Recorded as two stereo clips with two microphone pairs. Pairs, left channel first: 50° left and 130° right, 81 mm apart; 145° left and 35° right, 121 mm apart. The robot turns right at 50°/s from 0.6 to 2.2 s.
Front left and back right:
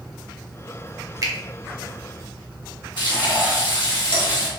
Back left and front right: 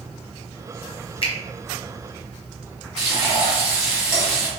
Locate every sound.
1.2 s a finger snap: 170° right, 0.7 m; by 1.3 s 165° right, 0.7 m
3.0 s frying: 45° left, 1.4 m